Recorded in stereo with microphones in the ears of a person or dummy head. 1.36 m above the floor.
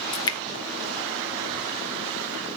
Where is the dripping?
20° left (ahead or behind), 1.1 m.